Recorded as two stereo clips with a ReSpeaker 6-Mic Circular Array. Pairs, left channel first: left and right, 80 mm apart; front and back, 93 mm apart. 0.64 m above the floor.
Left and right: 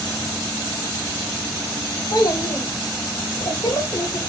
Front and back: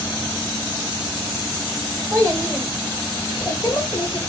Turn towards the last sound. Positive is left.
turn(degrees=45)